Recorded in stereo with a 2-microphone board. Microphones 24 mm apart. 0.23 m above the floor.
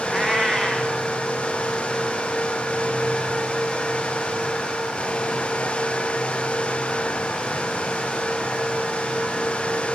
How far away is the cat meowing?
About 2 m.